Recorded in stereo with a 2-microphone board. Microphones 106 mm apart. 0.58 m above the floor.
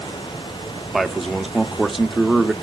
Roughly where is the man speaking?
Centre.